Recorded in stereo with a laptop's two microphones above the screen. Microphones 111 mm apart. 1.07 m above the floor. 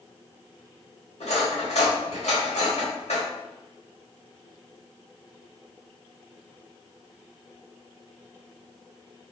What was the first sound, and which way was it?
Cutlery clinking, 80° left.